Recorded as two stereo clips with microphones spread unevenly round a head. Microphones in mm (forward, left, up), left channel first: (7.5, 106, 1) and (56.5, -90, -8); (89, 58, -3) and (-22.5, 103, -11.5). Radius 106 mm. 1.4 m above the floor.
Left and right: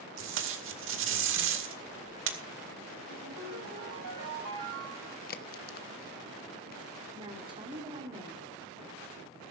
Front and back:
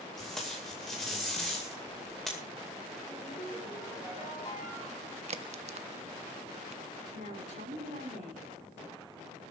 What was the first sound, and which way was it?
Tape being pulled, 110° right.